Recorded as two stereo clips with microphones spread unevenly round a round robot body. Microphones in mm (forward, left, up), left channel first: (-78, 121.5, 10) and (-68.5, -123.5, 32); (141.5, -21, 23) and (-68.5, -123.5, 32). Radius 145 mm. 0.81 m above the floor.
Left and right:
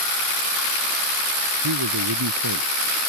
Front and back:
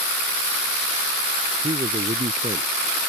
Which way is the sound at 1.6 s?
85° right.